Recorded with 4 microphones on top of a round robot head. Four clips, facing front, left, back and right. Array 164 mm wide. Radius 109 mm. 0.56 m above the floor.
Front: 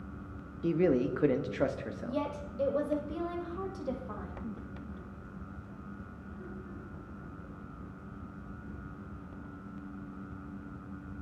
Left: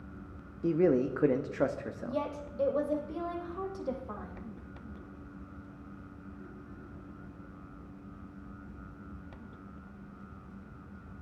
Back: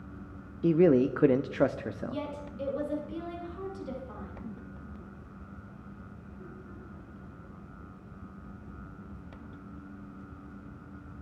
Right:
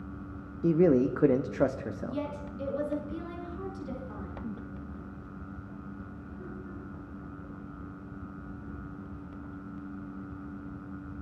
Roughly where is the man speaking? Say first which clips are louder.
Right 3 dB, back 5 dB; behind right.